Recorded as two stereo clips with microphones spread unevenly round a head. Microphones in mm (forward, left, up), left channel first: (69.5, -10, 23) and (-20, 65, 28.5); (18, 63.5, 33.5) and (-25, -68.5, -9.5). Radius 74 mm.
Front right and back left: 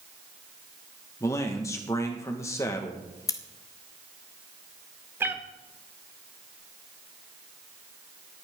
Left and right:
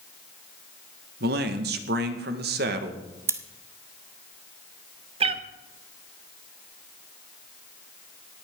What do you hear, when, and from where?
1.2 s a man speaking: 110° right, 1.7 m
3.3 s scissors: 15° right, 1.0 m
5.2 s a cat meowing: 160° right, 0.8 m